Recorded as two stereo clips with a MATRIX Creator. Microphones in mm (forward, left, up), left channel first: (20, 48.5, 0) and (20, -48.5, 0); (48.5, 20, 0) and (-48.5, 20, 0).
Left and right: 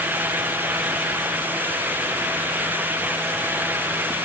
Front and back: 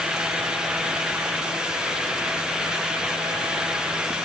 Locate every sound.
Only background noise.